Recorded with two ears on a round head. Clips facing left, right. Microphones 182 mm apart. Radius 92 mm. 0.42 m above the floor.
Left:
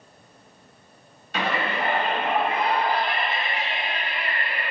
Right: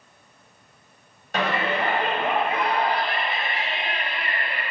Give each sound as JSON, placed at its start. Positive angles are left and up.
{"t": 1.3, "sound": "a shout", "side_deg": -45, "distance_m": 3.0}